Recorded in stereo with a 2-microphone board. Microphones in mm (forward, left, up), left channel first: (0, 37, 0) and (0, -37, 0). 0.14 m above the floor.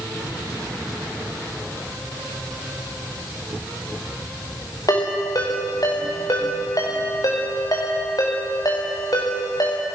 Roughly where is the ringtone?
Left.